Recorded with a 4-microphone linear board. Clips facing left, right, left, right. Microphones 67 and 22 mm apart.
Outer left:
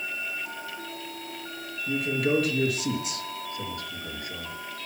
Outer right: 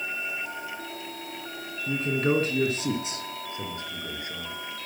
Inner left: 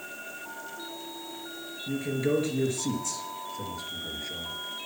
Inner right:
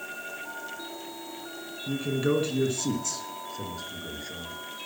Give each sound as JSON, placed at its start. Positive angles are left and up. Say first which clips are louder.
{"t": 1.9, "sound": "a man speaking", "louder": "even, inner right 1 dB", "side_deg": -40, "distance_m": 3.0}